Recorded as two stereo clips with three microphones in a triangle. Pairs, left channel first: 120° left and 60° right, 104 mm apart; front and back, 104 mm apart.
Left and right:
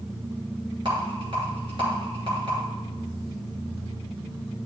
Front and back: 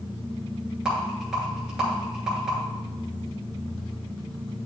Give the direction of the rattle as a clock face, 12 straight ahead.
3 o'clock.